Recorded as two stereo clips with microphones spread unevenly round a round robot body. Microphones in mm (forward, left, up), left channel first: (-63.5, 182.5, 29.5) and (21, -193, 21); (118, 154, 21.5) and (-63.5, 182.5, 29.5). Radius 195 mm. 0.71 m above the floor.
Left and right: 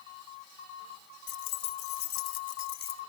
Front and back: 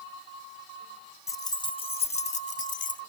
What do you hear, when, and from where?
1.3 s keys jangling: 65° left; by 3.0 s 35° left